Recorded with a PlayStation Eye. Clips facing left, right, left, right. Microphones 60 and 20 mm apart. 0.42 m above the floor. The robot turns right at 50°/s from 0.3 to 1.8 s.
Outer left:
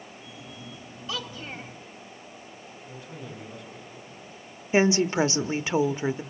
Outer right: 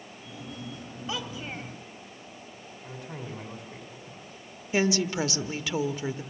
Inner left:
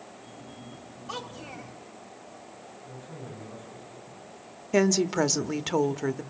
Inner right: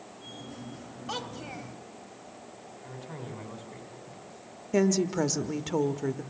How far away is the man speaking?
About 4 m.